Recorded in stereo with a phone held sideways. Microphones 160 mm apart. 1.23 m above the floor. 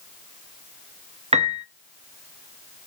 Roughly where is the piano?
Right.